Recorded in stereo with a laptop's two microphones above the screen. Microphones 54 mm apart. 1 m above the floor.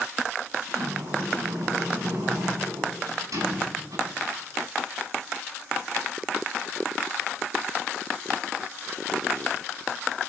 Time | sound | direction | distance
0.7 | a sliding door | 85° right | 7.5 m